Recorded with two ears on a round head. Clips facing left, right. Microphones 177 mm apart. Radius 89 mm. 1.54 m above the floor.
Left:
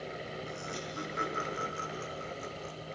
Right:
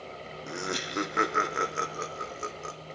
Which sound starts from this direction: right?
Laughter, at 0.5 s.